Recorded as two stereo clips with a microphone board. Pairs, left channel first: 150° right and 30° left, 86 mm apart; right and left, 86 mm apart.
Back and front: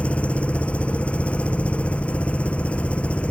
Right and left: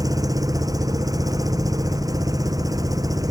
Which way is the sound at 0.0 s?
135° left.